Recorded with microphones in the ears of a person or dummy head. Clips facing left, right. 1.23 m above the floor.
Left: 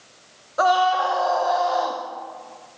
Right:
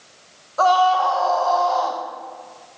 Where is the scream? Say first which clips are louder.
Right 2 dB; 20° left (ahead or behind), 0.7 m.